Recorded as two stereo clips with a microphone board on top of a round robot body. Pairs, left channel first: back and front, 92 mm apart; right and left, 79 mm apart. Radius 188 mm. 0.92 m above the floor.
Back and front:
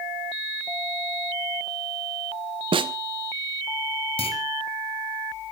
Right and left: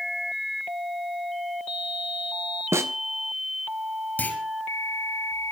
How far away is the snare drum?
About 0.7 m.